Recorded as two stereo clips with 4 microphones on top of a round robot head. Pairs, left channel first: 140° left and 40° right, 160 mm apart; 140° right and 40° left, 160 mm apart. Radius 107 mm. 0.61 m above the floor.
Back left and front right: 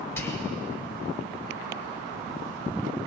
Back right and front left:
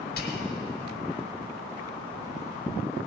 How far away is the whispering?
About 2.0 m.